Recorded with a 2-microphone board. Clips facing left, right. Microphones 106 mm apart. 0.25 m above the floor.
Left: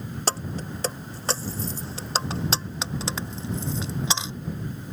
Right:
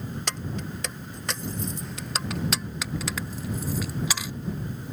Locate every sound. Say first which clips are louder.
0.3 s keys jangling: left 7 dB; 35° left (ahead or behind); by 4.3 s 25° left (ahead or behind)